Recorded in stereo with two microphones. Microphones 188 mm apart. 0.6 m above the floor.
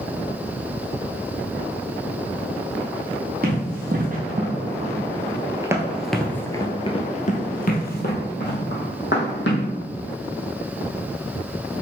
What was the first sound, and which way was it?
Running footsteps, 55° right (ahead or behind).